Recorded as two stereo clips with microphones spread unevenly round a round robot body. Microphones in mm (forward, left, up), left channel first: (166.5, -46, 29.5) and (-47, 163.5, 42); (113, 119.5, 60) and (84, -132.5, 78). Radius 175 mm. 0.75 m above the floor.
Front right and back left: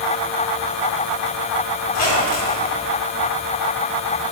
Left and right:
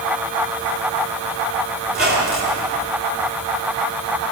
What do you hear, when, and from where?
1.9 s a squeak: 45° right, 3 m